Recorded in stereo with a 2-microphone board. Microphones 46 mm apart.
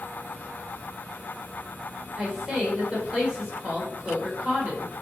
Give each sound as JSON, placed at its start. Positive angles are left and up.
{"t": 2.2, "sound": "a woman speaking", "side_deg": -20, "distance_m": 1.1}